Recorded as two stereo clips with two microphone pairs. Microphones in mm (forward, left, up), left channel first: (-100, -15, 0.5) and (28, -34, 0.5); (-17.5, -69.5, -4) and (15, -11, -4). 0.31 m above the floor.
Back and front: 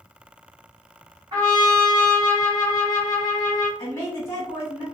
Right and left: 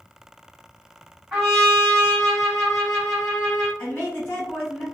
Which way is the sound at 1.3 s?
25° right.